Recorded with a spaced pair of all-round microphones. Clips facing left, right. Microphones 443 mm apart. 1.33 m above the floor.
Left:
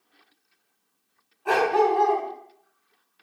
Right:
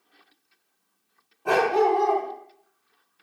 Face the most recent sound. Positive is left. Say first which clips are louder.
# right 1 dB
turn(degrees=-60)  # may be behind; listen again after turning